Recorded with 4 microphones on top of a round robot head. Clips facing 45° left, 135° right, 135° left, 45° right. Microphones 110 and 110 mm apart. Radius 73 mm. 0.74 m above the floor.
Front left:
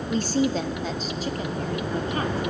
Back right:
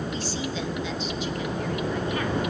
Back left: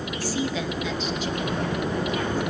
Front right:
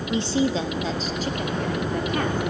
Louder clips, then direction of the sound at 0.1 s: Front left 7 dB, front right 6 dB; 20° left.